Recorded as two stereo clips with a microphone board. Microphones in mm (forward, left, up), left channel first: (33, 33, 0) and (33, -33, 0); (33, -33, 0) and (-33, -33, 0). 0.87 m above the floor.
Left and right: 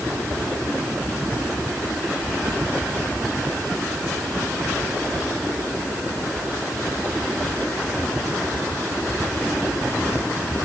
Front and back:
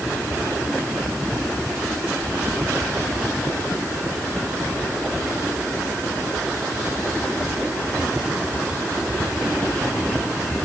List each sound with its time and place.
Only background noise.